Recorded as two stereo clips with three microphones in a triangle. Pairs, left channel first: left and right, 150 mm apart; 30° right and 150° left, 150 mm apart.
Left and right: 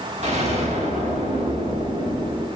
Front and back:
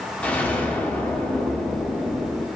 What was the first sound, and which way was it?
An explosion, 110° right.